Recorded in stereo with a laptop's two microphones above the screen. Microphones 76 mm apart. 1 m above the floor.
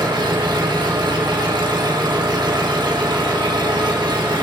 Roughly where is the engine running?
Right.